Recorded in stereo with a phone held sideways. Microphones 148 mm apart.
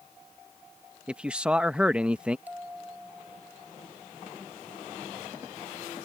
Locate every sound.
1.1 s a man speaking: 5° right (ahead or behind)
2.5 s a bell: 10° right (ahead or behind)